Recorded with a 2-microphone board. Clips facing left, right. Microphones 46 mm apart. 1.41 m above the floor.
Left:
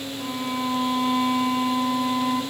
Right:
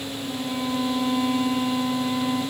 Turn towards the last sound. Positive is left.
turn(degrees=35)  # may be behind; listen again after turning